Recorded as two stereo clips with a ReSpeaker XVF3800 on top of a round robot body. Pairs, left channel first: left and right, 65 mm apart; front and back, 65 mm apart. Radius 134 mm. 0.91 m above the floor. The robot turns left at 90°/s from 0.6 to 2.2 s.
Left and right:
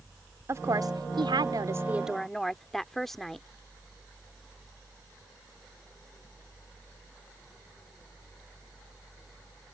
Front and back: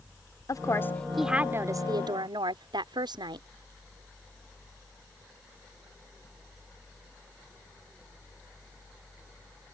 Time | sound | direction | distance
0.5 | a woman speaking | 40° right | ?